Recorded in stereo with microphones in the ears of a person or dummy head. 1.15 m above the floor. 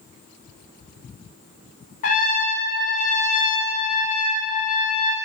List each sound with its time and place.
2.0 s a trumpet: 45° left (ahead or behind), 0.5 m